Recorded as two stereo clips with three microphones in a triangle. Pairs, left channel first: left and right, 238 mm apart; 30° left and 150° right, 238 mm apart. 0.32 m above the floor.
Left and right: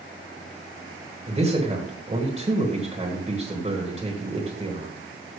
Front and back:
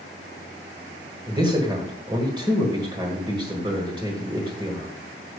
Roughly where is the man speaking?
Right.